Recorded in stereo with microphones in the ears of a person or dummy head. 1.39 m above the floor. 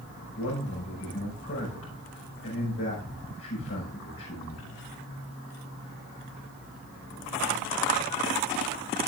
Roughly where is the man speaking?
Left.